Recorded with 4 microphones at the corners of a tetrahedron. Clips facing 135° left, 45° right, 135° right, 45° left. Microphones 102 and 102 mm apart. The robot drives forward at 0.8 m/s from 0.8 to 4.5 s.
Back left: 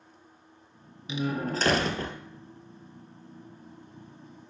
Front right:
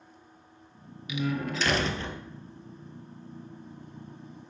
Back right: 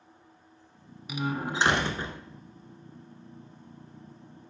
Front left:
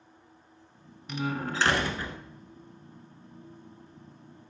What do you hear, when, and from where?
1.1 s a door slam: 145° left, 0.9 m; by 2.2 s 165° left, 1.5 m